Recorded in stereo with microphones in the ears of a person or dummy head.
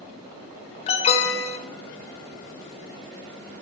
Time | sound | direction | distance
0.9 | an alarm | 35° left (ahead or behind) | 1.2 m